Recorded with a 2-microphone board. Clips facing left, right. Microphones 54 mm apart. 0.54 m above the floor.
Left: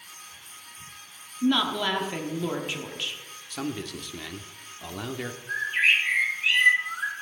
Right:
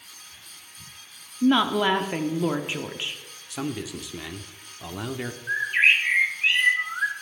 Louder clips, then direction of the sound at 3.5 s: Right 2 dB; 5° right (ahead or behind).